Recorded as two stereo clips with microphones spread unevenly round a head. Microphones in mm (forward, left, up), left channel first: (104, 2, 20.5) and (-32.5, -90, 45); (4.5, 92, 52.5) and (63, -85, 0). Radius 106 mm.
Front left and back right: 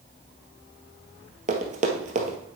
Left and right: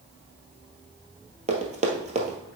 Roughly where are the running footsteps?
Behind right.